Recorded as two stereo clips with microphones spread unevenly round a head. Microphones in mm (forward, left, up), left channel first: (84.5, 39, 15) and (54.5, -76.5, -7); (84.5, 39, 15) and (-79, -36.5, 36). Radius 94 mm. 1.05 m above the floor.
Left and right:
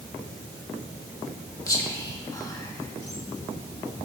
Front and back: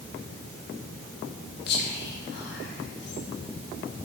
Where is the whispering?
10° left, 2.5 m.